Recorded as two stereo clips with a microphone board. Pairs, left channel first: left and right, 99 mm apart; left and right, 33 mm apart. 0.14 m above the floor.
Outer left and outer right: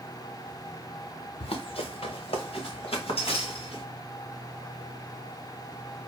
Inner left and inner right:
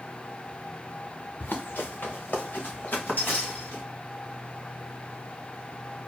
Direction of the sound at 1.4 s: 80° left.